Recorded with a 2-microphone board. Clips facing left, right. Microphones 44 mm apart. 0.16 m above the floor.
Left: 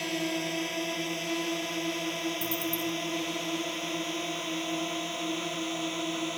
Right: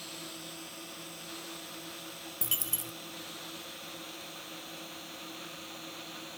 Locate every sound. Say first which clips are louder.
0.0 s a drone: left 14 dB; 65° left (ahead or behind); by 6.4 s 70° left (ahead or behind)
2.4 s a dropped coin: left 9 dB; 85° right